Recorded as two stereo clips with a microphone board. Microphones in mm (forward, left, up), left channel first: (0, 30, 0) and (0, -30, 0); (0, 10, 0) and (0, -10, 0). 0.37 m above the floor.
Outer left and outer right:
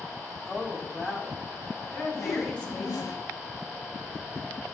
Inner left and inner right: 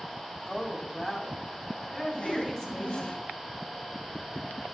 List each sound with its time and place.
0.5 s a woman speaking: 5° right (ahead or behind), 2.5 m; by 3.2 s 25° left (ahead or behind), 3.5 m
2.2 s a whoosh: 70° left (ahead or behind), 0.7 m